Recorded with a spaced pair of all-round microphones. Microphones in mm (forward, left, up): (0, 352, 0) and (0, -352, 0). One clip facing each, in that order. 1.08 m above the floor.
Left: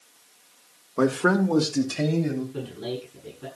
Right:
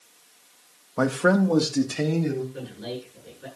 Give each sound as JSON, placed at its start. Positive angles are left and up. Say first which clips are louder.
{"t": 1.0, "sound": "a man speaking", "louder": "even", "side_deg": -25, "distance_m": 1.3}
{"t": 2.5, "sound": "a man speaking", "louder": "left 3 dB", "side_deg": 85, "distance_m": 8.5}